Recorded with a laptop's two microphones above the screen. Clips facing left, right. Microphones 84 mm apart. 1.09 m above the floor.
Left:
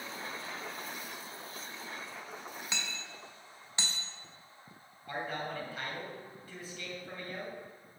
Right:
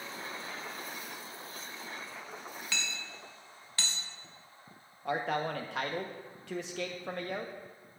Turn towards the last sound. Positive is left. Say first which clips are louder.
# right 6 dB
turn(degrees=-80)